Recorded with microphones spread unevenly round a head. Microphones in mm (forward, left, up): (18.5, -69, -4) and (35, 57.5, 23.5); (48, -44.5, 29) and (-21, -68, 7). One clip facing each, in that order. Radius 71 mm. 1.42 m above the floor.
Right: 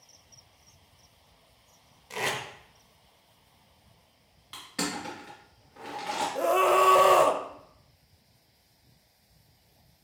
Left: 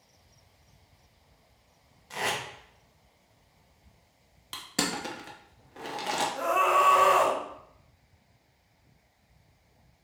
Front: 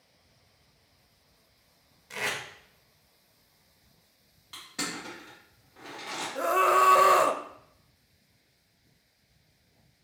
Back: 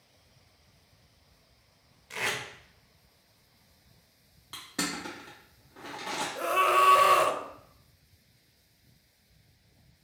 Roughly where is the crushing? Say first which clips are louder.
Left 2 dB, back 2 dB; behind left.